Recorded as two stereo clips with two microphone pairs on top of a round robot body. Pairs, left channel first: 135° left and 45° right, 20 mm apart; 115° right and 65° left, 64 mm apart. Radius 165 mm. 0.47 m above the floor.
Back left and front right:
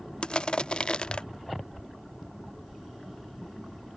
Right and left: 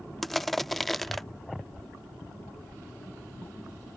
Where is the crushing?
165° left.